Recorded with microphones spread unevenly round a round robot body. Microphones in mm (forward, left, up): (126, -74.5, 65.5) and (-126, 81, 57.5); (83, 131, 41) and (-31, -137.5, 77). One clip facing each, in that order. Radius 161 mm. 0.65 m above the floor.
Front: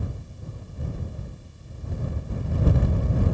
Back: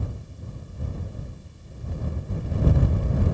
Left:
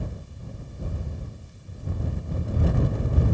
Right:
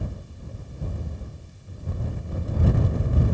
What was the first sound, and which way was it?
Only background noise.